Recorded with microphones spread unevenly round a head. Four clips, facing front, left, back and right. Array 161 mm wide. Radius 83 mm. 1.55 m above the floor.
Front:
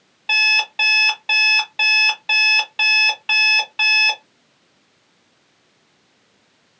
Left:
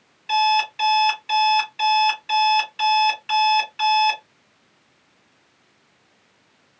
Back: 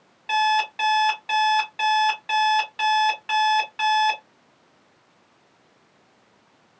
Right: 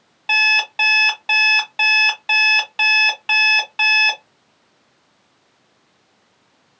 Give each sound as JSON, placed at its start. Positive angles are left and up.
{"t": 0.3, "sound": "an alarm clock", "azimuth_deg": -80, "distance_m": 1.8}